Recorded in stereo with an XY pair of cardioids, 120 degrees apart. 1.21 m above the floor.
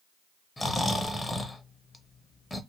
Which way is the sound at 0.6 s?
15° left.